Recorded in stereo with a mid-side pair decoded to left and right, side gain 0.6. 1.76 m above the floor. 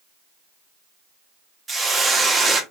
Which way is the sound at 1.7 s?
20° right.